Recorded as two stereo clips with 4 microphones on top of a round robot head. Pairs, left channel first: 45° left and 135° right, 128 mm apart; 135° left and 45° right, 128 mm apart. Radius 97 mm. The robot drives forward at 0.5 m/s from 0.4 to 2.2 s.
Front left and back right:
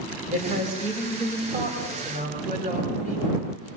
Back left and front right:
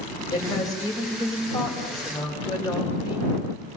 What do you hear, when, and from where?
0.3 s a woman speaking: 160° right, 5 m; by 3.3 s 165° right, 5.5 m